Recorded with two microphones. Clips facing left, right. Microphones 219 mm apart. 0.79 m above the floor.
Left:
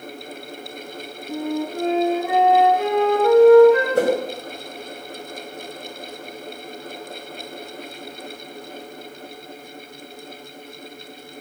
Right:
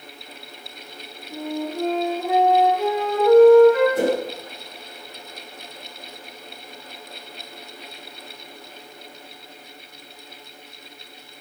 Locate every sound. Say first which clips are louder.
1.3 s a flute: left 3 dB; 85° left, 10 m
4.0 s a whoosh: left 2 dB; 70° left (ahead or behind), 3.5 m